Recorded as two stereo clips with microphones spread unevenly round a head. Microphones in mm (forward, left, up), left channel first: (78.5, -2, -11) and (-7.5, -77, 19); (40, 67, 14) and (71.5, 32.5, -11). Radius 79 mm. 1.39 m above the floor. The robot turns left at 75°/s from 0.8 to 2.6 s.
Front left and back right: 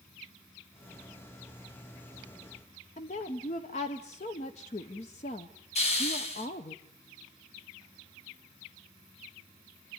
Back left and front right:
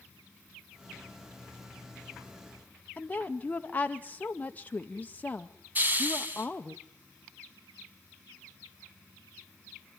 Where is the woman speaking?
70° left, 0.8 m.